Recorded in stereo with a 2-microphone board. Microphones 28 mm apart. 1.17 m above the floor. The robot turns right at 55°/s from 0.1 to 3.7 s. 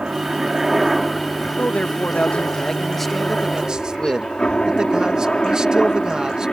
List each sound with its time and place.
0.0 s a helicopter: 45° right; by 6.5 s 150° left
1.6 s a man speaking: 95° left; by 6.5 s 145° right